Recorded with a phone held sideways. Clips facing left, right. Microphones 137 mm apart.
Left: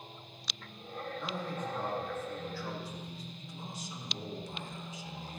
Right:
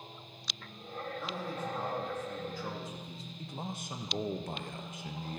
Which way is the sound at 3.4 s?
60° right (ahead or behind).